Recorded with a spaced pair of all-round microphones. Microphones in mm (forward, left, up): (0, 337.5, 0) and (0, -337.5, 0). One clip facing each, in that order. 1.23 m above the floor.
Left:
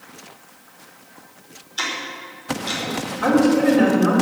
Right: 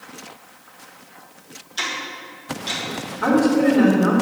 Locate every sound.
1.8 s ticking: 80° right, 3.5 m
3.2 s a woman speaking: centre (ahead or behind), 3.5 m